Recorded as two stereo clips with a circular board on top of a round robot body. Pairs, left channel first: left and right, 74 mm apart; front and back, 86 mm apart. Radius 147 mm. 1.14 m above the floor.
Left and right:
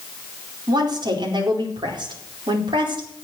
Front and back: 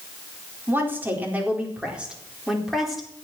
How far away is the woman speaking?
About 4.5 m.